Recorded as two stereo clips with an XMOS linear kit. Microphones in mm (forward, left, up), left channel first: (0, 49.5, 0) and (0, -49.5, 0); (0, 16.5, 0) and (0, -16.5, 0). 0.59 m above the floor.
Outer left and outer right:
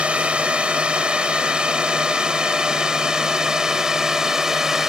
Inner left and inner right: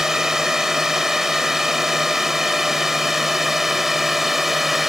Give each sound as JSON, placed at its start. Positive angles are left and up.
{"t": 0.0, "sound": "a drone", "side_deg": -10}